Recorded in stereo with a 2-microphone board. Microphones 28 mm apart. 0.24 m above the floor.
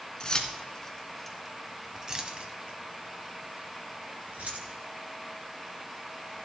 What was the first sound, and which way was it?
Keys jangling, 30° left (ahead or behind).